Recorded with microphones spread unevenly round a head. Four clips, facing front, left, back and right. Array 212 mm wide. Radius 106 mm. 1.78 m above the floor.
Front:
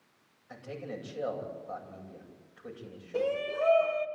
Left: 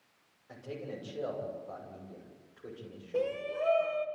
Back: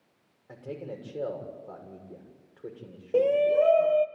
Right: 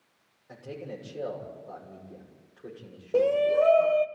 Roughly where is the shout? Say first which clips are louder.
Right 11 dB, back 9 dB; behind right.